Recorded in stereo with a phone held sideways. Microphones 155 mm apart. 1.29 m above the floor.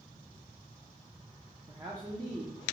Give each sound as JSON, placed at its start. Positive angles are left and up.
{"t": 1.7, "sound": "a man speaking", "side_deg": -25, "distance_m": 0.5}